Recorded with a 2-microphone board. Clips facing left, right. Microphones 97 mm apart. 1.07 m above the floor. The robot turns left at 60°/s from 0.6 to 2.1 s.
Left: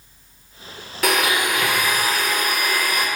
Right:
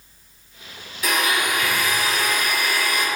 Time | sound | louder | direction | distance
1.0 | a blender | left 2 dB | 110° left | 0.5 m